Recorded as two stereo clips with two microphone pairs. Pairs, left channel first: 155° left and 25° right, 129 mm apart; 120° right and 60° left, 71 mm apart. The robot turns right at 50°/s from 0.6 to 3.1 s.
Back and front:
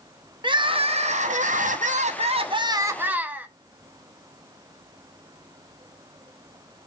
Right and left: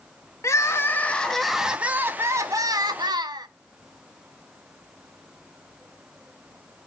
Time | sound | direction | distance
0.4 | crying | 75° right | 0.7 m